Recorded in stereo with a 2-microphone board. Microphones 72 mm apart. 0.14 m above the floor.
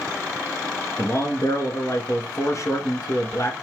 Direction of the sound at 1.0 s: 45° left (ahead or behind).